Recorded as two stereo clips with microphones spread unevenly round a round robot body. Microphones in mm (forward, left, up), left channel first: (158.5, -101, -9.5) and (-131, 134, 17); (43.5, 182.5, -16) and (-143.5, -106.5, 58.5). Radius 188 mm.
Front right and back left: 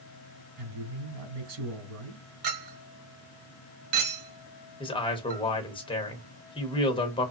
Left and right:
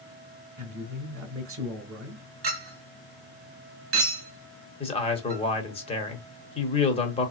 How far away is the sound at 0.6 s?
About 1.3 m.